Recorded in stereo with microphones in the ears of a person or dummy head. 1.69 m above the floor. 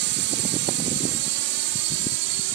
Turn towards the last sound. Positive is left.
turn(degrees=-75)  # may be behind; listen again after turning